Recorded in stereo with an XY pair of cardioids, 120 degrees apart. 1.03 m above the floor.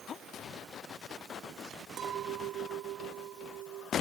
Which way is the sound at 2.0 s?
55° right.